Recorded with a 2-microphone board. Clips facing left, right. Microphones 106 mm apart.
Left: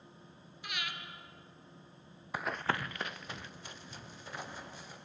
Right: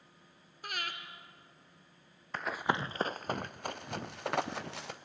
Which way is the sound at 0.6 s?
45° right (ahead or behind).